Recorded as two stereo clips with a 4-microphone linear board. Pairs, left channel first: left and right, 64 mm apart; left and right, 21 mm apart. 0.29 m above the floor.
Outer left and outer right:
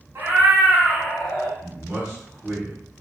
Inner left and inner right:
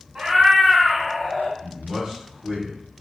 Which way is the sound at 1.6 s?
15° right (ahead or behind).